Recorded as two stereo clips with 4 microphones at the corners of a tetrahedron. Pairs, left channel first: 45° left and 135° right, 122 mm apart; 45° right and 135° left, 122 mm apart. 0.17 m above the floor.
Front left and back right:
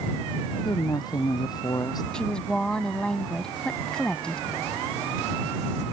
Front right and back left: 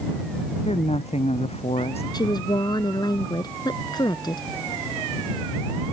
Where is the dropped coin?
I don't hear a dropped coin.